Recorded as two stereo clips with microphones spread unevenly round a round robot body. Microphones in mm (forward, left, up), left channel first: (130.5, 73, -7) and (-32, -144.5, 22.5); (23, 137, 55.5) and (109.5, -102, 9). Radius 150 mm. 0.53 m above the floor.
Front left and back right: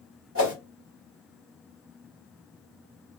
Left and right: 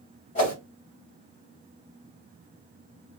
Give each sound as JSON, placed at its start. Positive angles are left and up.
{"t": 0.3, "sound": "a whoosh", "azimuth_deg": 180, "distance_m": 1.9}